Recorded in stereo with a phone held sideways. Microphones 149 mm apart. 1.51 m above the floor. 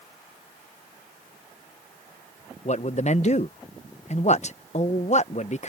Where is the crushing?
No crushing in this recording.